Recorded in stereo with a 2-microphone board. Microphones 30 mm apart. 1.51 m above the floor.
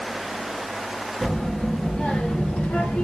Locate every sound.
1.2 s a child speaking: 15° left (ahead or behind), 1.8 m; by 3.1 s 55° left (ahead or behind), 1.0 m